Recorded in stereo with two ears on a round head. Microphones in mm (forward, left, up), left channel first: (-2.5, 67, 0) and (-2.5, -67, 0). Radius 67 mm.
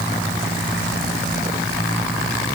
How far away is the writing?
I don't hear writing.